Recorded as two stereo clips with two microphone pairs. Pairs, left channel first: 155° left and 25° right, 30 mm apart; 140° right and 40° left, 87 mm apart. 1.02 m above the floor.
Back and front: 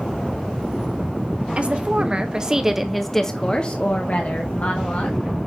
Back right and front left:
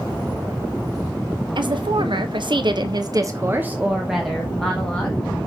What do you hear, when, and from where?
1.6 s a woman speaking: 15° left, 1.3 m; by 5.2 s 145° left, 1.5 m